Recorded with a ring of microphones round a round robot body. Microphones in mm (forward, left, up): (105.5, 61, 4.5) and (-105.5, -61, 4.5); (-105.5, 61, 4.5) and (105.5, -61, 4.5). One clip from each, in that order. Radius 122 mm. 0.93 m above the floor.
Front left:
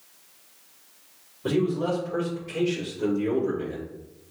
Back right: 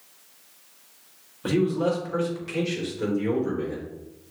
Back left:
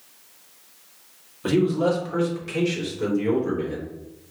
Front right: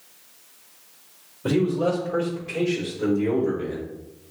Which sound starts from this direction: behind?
A man speaking, at 1.4 s.